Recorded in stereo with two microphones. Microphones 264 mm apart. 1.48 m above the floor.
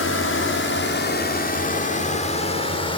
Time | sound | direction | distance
0.0 | a drone | 60° left (ahead or behind) | ?